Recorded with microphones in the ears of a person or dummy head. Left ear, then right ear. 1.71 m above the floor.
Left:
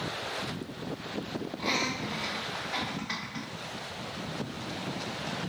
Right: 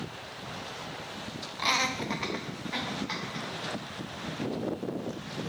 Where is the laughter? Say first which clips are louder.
Right 3 dB; 65° right (ahead or behind), 0.8 m; by 3.5 s 10° right (ahead or behind), 1.4 m.